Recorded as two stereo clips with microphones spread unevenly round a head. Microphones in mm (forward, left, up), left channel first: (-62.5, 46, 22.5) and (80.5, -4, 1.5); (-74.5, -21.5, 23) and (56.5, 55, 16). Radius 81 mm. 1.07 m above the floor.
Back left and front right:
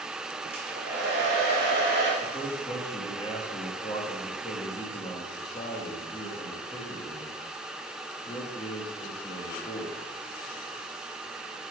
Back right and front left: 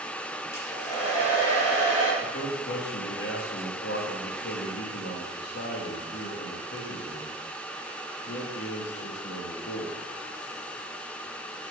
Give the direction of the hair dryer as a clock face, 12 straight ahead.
3 o'clock.